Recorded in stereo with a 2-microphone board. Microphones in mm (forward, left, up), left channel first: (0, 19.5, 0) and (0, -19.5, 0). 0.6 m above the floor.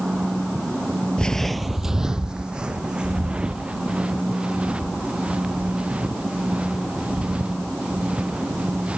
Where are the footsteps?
25° left (ahead or behind); by 9.0 s 30° right (ahead or behind).